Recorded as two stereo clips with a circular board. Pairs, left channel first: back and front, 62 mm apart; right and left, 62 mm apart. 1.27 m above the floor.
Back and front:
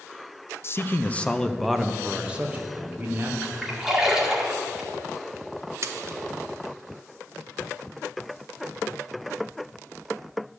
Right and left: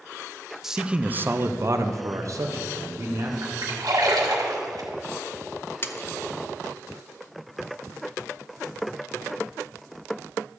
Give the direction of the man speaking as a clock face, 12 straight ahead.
6 o'clock.